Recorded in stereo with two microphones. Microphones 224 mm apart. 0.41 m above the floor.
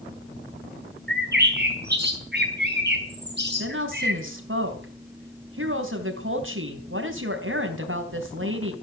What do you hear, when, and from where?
1.1 s a bird: 50° right (ahead or behind), 4 m
3.6 s a woman speaking: 65° right (ahead or behind), 3.5 m